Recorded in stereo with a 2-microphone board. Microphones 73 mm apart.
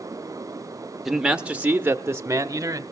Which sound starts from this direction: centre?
A man speaking, at 1.1 s.